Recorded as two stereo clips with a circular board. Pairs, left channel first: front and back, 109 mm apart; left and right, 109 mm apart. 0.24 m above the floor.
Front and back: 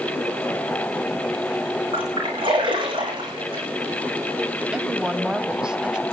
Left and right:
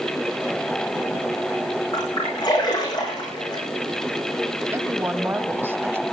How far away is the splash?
About 9 m.